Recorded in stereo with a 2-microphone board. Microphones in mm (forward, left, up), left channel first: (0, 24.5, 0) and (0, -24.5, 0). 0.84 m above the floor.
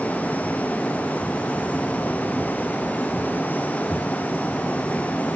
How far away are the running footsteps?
I don't hear running footsteps.